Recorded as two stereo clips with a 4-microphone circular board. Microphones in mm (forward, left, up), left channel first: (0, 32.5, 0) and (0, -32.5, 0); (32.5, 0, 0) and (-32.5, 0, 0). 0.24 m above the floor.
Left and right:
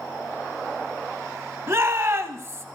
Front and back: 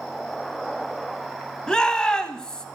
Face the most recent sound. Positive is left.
turn(degrees=-70)